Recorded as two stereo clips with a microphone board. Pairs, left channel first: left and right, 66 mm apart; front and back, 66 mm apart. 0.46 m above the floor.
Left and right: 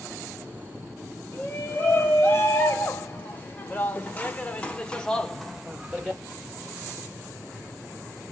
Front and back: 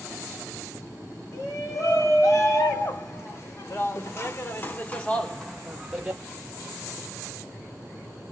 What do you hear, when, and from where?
1.3 s a shout: 30° left, 2.5 m; by 6.2 s 140° right, 0.8 m